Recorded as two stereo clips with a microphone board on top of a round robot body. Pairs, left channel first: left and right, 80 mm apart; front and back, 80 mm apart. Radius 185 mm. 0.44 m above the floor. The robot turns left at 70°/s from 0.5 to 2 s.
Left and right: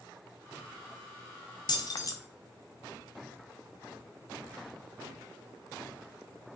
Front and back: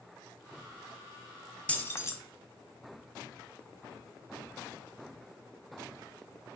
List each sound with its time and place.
1.7 s keys jangling: 75° left, 0.5 m; by 2.1 s 50° left, 0.5 m